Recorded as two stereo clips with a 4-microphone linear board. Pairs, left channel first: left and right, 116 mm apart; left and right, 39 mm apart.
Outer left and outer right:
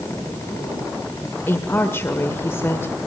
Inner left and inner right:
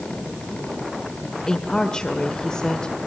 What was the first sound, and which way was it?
A woman speaking, 20° left (ahead or behind).